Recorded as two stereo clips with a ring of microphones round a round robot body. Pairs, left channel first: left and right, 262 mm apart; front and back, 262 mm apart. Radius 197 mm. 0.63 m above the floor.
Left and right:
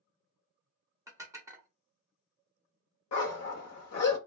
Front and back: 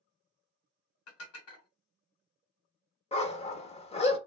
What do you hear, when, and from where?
1.1 s dishes clattering: 10° right, 1.0 m
3.1 s a dog barking: 70° left, 0.8 m